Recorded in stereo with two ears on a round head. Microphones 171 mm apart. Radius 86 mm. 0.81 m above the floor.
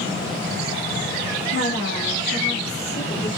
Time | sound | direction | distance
1.5 | a woman speaking | 65° left (ahead or behind) | 2.5 m